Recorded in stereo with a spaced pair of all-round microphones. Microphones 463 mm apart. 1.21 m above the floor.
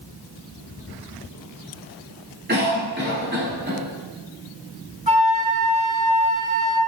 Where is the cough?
20° right (ahead or behind), 3 m.